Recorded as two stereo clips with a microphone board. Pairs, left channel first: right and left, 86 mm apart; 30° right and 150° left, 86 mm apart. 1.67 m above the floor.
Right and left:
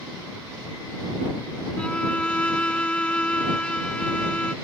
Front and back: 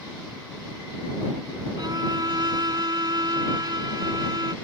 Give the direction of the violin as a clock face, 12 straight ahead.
6 o'clock.